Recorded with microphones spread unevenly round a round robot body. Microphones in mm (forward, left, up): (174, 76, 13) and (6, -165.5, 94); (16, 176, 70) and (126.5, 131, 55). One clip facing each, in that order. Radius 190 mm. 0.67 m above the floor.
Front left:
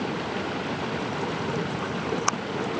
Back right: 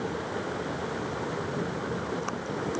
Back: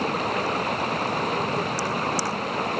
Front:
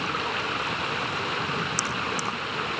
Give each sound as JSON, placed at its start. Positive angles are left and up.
{"t": 0.0, "sound": "running water", "azimuth_deg": 110}